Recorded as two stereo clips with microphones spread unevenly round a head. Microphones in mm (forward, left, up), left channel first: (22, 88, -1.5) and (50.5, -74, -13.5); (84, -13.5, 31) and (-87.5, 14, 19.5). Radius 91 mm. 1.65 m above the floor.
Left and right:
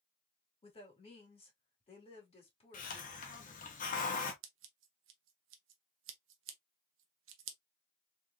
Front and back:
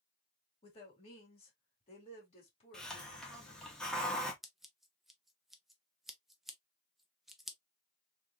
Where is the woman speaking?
50° left, 2.5 m.